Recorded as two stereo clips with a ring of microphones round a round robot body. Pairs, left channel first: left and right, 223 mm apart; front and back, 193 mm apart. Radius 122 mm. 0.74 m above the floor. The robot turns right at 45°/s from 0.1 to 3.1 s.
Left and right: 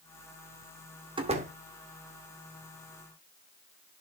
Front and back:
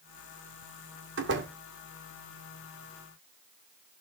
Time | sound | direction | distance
1.2 | a door slam | 160° right | 2.0 m